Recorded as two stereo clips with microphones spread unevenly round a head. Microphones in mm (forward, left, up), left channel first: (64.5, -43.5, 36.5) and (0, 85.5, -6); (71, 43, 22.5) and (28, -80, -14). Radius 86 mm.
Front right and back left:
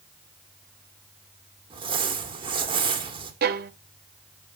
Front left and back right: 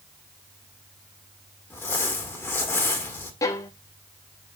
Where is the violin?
110° left, 0.7 m.